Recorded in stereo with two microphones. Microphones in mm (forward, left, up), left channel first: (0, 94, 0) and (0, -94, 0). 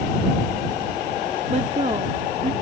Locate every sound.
1.5 s a woman speaking: 40° right (ahead or behind)